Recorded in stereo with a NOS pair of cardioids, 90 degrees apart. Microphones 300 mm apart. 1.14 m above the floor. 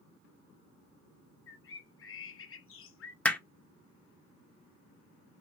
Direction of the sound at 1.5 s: 45° left.